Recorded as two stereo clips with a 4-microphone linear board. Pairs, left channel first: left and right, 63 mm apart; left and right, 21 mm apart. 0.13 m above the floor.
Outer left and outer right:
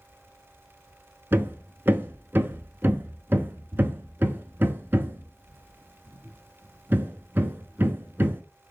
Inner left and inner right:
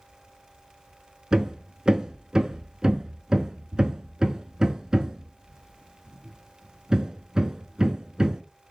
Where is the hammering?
35° right (ahead or behind), 0.6 m.